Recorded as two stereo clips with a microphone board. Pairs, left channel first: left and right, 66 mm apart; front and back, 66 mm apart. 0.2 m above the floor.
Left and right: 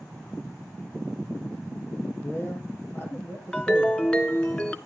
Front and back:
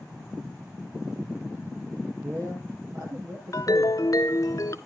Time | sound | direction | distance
2.2 | a man speaking | 145° left | 6.5 m
3.5 | a ringtone | 20° left | 0.9 m